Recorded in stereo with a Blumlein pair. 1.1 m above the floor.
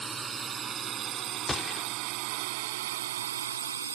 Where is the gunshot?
15° left.